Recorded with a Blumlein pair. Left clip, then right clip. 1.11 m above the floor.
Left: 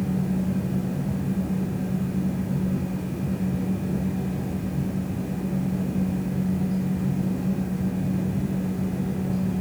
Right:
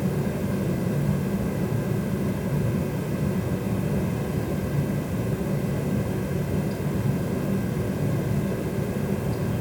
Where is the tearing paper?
No tearing paper in this recording.